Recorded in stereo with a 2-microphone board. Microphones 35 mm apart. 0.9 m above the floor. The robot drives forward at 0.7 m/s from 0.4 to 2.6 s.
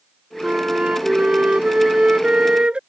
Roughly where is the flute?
Right.